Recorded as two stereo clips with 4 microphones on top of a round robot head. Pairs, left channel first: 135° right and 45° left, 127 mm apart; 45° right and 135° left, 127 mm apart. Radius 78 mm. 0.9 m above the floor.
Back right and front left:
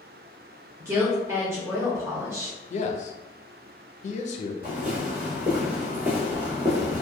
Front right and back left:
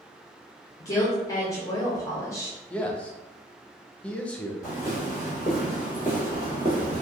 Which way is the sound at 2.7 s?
125° right.